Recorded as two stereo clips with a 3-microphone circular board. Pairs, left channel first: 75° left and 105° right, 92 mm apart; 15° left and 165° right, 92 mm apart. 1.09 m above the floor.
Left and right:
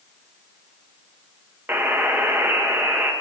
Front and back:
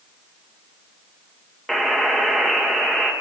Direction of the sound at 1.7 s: 70° right.